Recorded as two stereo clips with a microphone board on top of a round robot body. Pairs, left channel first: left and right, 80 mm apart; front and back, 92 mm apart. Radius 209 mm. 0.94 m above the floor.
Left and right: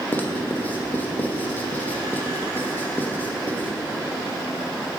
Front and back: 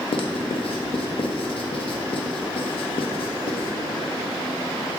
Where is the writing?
20° left, 0.8 m.